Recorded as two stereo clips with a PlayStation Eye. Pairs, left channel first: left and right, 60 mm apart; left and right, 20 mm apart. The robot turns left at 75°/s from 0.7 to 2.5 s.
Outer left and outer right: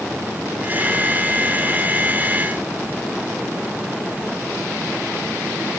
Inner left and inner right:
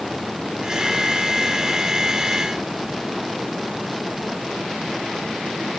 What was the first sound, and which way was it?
Only background noise.